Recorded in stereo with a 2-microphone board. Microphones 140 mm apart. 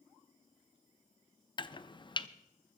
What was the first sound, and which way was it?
Chopping, 35° left (ahead or behind).